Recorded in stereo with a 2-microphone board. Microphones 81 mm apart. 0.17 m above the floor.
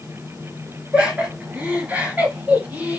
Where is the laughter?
15° right (ahead or behind), 2.5 m; by 3.0 s 25° right (ahead or behind), 4 m.